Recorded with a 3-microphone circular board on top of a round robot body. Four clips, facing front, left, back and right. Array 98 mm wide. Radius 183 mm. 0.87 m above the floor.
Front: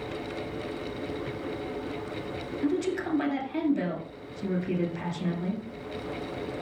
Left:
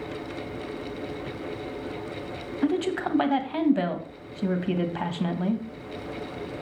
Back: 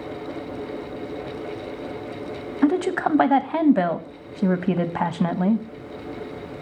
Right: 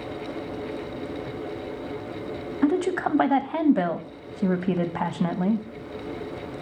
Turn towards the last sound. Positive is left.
turn(degrees=-160)